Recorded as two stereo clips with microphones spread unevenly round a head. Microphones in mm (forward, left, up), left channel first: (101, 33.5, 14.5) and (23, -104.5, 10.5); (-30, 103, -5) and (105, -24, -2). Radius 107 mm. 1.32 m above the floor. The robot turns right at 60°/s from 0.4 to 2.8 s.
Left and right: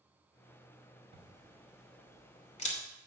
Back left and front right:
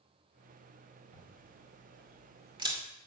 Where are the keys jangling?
No keys jangling in this recording.